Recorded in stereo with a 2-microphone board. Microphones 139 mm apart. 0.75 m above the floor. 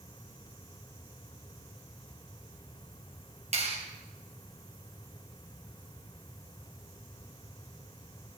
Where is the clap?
50° right (ahead or behind), 3 m.